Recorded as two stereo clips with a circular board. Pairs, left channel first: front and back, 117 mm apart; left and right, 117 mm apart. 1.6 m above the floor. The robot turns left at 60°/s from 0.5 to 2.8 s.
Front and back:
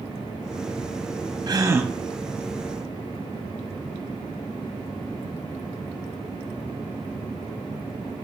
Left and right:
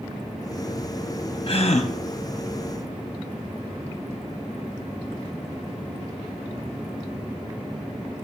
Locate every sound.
1.5 s a gasp: 130° left, 0.6 m; by 1.9 s 105° left, 0.6 m